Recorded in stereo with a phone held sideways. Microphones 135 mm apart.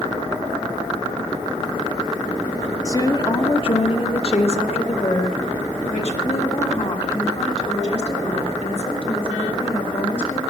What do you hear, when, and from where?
2.9 s a woman speaking: 20° left (ahead or behind), 0.9 m; by 10.4 s 50° left (ahead or behind), 5 m